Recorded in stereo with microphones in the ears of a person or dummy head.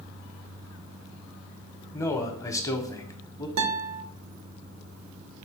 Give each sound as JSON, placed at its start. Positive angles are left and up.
{"t": 1.9, "sound": "a man speaking", "side_deg": 10, "distance_m": 0.6}
{"t": 3.6, "sound": "a guitar", "side_deg": -80, "distance_m": 0.7}